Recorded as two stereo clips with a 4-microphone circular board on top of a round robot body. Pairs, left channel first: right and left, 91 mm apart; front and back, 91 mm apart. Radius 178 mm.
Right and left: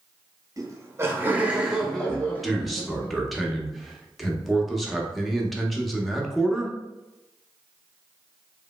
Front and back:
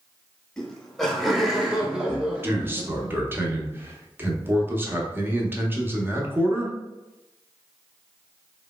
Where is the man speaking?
Straight behind, 0.9 m.